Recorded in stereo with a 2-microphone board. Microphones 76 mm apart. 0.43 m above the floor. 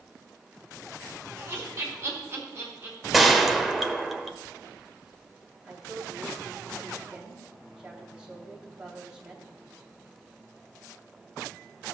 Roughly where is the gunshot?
Centre.